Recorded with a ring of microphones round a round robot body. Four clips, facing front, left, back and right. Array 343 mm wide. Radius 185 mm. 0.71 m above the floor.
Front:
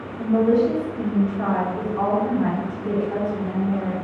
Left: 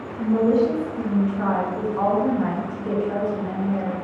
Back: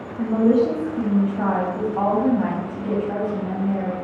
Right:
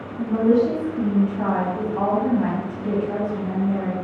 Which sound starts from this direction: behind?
A woman speaking, at 0.2 s.